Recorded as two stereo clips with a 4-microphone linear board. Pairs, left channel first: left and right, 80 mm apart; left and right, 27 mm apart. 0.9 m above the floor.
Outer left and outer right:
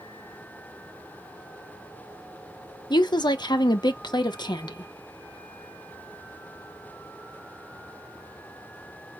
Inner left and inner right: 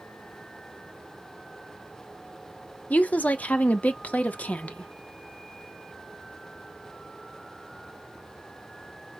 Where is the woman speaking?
65° left (ahead or behind), 0.7 m.